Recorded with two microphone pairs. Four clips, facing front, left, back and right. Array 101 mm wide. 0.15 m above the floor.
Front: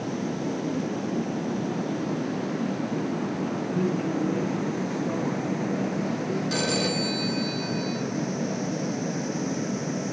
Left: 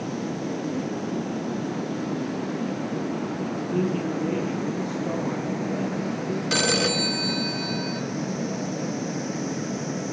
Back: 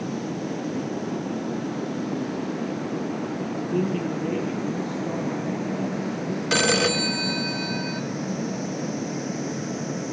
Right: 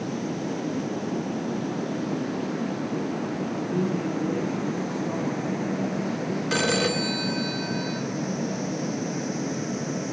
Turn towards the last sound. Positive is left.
turn(degrees=180)